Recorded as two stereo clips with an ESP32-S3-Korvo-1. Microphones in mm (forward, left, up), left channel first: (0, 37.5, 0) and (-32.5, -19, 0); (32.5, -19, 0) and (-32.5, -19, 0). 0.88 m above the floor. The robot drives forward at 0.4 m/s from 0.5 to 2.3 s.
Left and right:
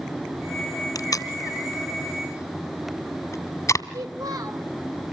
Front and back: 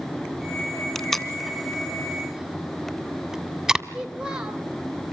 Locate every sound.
0.9 s tape being pulled: 80° left, 2.0 m; by 3.8 s 100° left, 2.0 m
3.9 s a child speaking: 105° right, 3.5 m